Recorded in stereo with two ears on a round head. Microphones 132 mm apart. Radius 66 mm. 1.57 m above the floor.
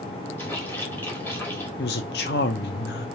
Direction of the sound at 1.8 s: 80° left.